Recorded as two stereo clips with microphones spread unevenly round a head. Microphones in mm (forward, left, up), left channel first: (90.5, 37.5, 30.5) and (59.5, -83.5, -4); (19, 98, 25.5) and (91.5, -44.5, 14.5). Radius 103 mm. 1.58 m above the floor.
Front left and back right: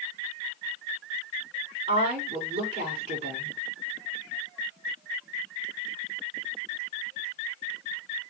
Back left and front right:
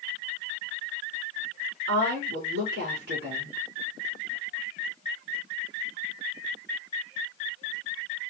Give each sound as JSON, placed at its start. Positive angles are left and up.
{"t": 1.9, "sound": "a woman speaking", "azimuth_deg": -75, "distance_m": 4.0}